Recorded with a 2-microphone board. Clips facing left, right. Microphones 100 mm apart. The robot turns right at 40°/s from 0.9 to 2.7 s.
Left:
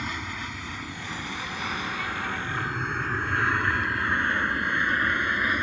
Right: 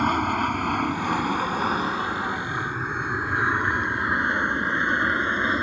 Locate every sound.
0.0 s an aircraft: 55° right (ahead or behind); by 5.6 s 25° right (ahead or behind)